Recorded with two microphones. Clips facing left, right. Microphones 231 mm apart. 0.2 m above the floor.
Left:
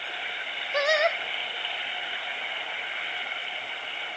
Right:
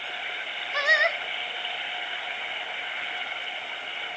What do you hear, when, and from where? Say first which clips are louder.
0.7 s singing: left 5 dB; 45° left (ahead or behind), 0.6 m